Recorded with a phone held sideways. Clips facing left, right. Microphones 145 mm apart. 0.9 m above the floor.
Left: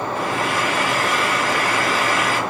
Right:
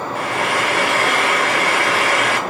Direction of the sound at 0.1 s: 85° right.